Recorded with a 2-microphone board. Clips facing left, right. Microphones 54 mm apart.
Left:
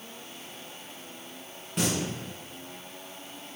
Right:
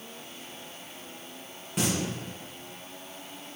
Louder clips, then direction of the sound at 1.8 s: Even; 5° right (ahead or behind).